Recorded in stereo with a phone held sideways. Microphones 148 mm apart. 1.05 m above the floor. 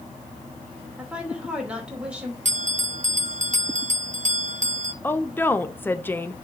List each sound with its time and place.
1.0 s a woman speaking: 10° right (ahead or behind), 2.5 m
2.5 s a bell: 60° right (ahead or behind), 0.5 m
5.0 s a woman speaking: 15° left (ahead or behind), 0.6 m